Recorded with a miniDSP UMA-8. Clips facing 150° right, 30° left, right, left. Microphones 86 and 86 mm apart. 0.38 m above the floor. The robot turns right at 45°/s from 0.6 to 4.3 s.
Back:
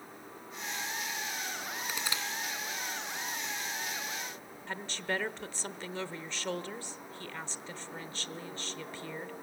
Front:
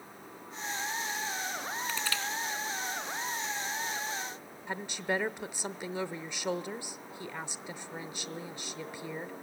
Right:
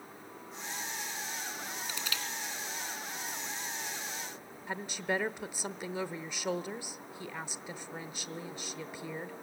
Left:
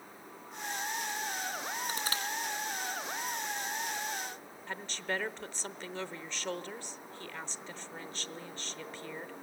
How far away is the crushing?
About 2.5 m.